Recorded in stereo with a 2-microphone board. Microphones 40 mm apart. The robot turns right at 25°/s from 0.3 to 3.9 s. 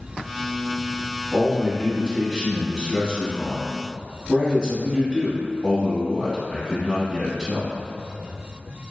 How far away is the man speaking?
About 1.1 m.